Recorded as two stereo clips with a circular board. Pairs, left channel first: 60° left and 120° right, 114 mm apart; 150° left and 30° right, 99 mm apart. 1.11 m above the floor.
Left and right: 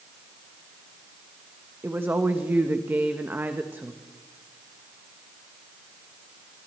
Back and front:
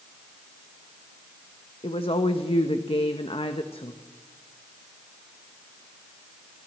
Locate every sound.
1.8 s a woman speaking: 170° left, 1.2 m